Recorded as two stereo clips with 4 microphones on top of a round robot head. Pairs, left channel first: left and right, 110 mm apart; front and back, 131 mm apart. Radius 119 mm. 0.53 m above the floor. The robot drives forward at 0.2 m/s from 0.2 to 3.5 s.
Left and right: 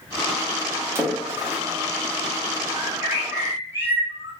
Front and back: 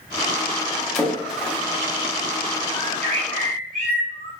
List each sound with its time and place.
0.9 s a splash: 80° right, 0.9 m; by 1.6 s 105° right, 0.9 m
2.7 s a bird: 160° right, 0.8 m